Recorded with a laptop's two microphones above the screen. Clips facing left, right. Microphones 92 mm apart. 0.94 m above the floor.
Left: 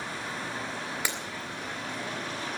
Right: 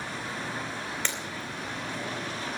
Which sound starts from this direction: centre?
Breaking glass, at 1.1 s.